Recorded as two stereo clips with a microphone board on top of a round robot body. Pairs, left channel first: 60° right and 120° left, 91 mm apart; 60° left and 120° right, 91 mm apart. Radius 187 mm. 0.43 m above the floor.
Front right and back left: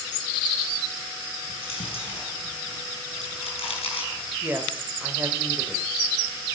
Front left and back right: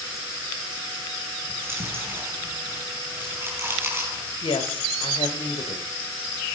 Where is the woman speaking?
50° left, 3 m.